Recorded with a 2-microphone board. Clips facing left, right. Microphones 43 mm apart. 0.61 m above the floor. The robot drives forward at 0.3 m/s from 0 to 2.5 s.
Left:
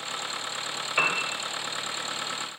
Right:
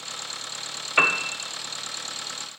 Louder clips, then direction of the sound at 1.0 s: Right 5 dB; 20° right (ahead or behind).